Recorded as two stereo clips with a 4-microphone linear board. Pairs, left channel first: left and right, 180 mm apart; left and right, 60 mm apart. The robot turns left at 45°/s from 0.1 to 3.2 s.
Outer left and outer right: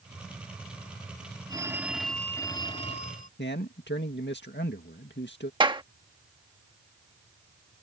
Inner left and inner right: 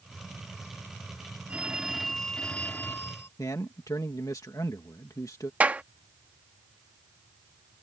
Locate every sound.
1.5 s a phone ringing: 155° right; by 3.3 s 125° left
3.4 s a man speaking: 80° left
5.6 s a clap: 25° right (ahead or behind)